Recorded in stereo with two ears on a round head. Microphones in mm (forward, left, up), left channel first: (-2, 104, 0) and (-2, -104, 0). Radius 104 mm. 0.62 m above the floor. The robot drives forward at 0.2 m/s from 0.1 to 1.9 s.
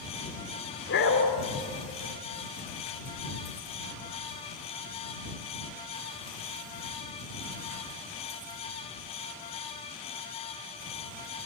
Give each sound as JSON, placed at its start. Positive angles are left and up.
{"t": 0.9, "sound": "a dog barking", "side_deg": 50, "distance_m": 3.0}